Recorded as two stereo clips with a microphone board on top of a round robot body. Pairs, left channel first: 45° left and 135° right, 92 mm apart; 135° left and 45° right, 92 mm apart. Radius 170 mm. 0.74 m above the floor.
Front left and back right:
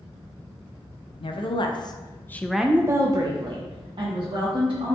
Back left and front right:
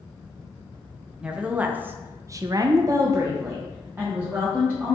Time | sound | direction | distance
1.2 | a woman speaking | 35° left | 0.8 m